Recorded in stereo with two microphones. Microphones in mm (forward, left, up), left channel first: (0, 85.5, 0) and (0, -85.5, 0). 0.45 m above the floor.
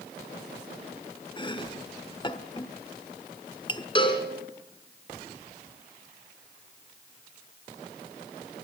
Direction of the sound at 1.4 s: 25° left (ahead or behind).